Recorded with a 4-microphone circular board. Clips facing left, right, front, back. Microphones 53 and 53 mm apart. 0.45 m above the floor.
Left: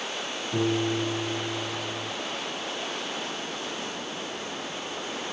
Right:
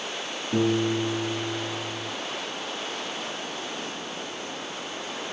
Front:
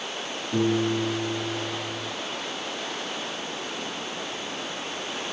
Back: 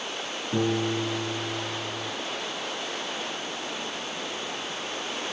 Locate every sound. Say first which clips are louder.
0.5 s a piano: right 3 dB, front 2 dB; 120° right, 6 m